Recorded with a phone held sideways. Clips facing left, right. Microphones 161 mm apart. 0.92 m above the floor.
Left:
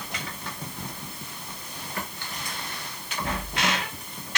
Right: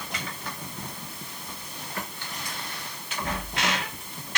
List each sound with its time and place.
Only background noise.